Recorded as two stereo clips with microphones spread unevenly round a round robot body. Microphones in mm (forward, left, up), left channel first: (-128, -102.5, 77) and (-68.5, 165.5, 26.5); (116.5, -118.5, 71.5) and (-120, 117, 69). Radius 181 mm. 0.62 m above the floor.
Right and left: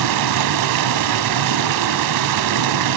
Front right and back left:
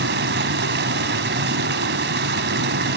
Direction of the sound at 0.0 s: 75° left.